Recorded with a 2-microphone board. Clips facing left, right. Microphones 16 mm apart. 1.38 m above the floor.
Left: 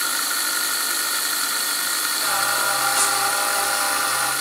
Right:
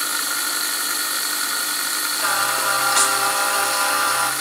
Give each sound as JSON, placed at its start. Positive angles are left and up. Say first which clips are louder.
{"t": 2.2, "sound": "singing", "louder": "right 2 dB", "side_deg": -60, "distance_m": 3.0}